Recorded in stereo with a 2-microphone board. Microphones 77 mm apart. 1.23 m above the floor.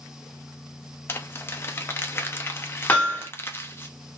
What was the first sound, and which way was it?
Crumpling, 30° left (ahead or behind).